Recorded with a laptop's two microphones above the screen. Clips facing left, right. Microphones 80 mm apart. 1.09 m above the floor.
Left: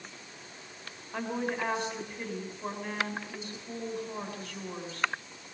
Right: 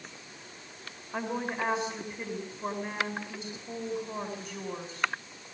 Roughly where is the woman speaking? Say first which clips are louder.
Even; centre.